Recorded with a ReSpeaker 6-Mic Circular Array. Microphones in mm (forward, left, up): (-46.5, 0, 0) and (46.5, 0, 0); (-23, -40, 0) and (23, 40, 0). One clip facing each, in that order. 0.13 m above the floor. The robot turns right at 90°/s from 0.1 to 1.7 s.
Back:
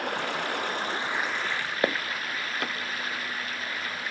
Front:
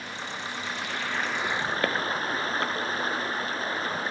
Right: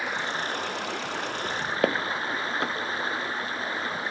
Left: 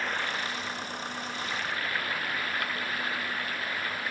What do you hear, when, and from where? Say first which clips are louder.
0.0 s running water: back 6 dB, right 2 dB; 160° left; by 4.1 s 55° right
1.8 s footsteps: back 2 dB, right 7 dB; 110° right